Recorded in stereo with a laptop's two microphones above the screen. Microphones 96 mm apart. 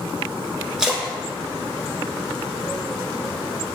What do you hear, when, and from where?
0.8 s a splash: 5° right (ahead or behind), 0.7 m